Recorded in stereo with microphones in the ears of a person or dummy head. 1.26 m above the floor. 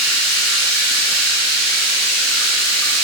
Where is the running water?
10° left (ahead or behind), 1.2 m.